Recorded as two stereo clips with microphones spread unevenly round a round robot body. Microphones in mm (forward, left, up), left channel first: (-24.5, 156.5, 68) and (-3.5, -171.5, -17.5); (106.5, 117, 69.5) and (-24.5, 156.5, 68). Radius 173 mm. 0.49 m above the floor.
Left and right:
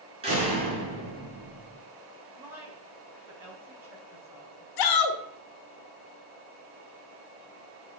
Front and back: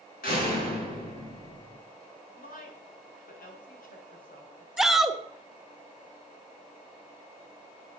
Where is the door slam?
15° right, 4 m.